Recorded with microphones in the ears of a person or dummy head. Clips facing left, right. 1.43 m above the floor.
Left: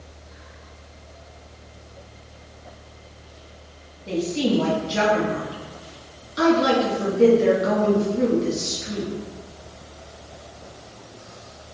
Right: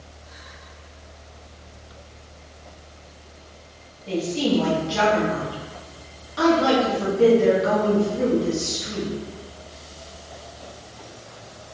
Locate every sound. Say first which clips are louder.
4.1 s a woman speaking: even; 20° left (ahead or behind), 1.5 m